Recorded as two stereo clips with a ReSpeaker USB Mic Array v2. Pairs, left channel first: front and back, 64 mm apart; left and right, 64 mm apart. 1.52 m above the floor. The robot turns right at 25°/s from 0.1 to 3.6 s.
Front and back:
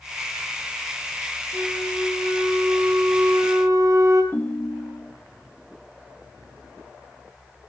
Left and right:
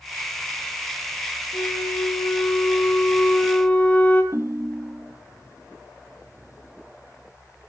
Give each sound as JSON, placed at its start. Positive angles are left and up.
{"t": 1.5, "sound": "a flute", "azimuth_deg": 110, "distance_m": 3.5}
{"t": 4.3, "sound": "a ringtone", "azimuth_deg": -55, "distance_m": 1.5}